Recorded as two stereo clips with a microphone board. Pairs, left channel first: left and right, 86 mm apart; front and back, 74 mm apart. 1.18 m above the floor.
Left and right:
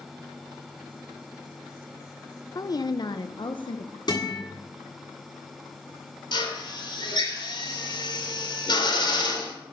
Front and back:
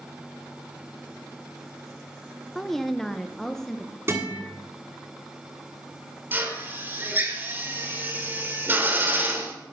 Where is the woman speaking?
85° left, 0.5 m.